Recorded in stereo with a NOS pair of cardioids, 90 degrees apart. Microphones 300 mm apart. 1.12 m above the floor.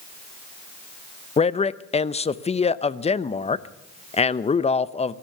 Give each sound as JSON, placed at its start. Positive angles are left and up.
{"t": 1.4, "sound": "a man speaking", "azimuth_deg": 20, "distance_m": 0.7}